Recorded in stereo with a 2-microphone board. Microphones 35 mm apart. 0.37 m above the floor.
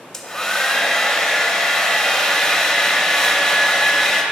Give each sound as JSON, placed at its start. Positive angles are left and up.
{"t": 0.1, "sound": "a hair dryer", "side_deg": 20, "distance_m": 0.6}